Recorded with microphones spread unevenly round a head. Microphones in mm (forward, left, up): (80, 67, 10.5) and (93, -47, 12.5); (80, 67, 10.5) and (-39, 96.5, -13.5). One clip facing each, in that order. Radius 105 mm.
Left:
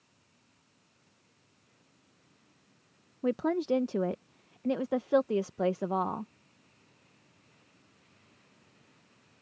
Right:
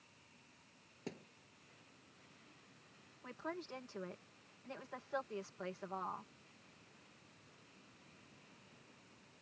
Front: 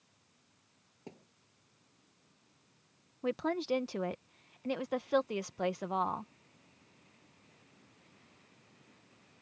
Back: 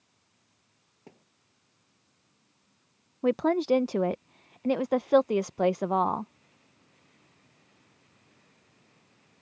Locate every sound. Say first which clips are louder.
1.1 s a thud: right 21 dB, front 3 dB; 90° right
3.2 s a woman speaking: left 18 dB, back 9 dB; 125° left